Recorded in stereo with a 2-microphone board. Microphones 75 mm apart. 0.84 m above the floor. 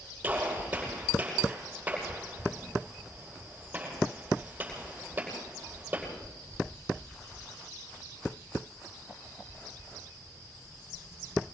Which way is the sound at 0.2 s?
20° right (ahead or behind).